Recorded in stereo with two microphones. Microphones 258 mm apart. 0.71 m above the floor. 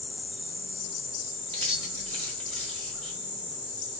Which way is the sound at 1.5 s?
5° left (ahead or behind).